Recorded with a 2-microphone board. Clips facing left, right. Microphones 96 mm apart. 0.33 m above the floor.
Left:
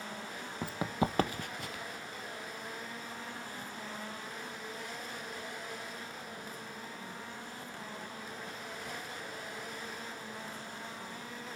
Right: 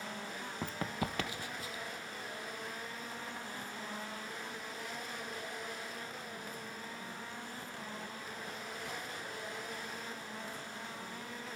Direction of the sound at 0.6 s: 5° left (ahead or behind).